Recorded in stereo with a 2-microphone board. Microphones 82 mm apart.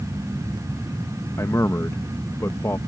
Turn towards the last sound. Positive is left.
turn(degrees=35)  # may be behind; listen again after turning